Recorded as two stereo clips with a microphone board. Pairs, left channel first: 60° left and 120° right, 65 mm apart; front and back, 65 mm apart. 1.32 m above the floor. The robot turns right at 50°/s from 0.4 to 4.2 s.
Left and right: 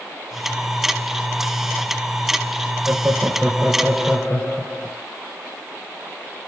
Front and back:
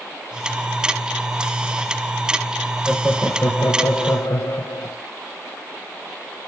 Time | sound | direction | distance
2.9 | laughter | 70° right | 1.0 m